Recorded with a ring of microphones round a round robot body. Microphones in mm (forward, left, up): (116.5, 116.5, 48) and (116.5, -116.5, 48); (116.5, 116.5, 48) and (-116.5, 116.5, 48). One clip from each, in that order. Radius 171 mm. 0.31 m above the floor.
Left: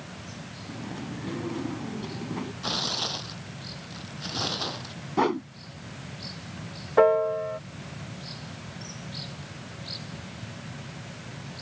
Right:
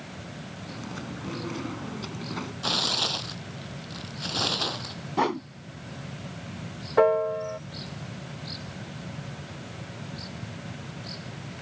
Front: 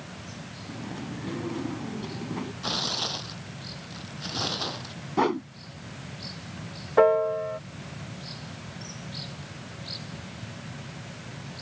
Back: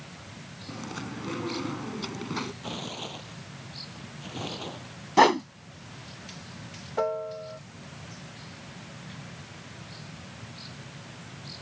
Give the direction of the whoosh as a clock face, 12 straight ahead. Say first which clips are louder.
Left 1 dB, back 6 dB; 6 o'clock.